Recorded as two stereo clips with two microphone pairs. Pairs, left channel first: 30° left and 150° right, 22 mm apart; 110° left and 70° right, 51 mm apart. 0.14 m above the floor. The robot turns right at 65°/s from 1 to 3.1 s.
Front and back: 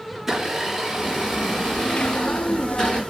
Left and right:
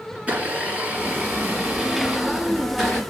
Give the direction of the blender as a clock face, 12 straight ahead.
3 o'clock.